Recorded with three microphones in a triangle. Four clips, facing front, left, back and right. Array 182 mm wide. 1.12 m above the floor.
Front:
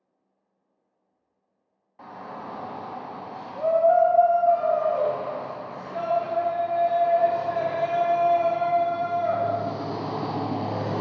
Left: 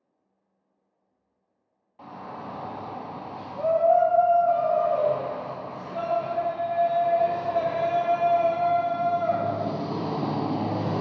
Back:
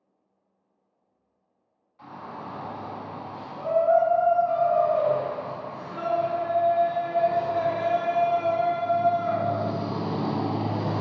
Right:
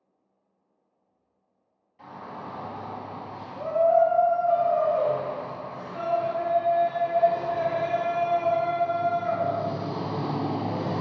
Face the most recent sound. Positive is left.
turn(degrees=50)